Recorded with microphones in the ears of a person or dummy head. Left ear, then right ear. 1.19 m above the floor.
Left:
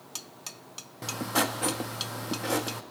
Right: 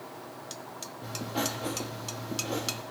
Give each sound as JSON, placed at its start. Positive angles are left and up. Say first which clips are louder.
{"t": 1.0, "sound": "writing", "louder": "left 5 dB", "side_deg": 50, "distance_m": 0.8}